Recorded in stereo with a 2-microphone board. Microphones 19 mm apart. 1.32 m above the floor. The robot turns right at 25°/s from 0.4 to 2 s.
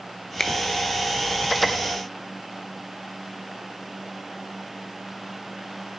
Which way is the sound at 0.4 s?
20° left (ahead or behind).